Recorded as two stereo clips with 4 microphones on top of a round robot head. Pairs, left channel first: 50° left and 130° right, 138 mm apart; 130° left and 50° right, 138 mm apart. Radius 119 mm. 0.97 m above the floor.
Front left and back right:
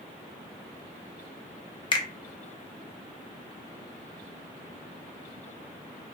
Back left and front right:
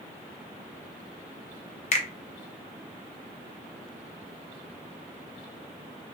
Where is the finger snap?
100° left, 0.8 m.